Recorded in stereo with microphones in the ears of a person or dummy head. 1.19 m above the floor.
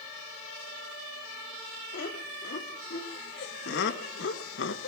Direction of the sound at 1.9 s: 55° left (ahead or behind).